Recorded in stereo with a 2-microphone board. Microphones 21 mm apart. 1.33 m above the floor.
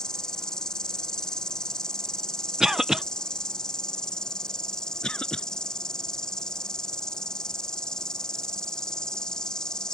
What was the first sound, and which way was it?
An insect, 35° left (ahead or behind).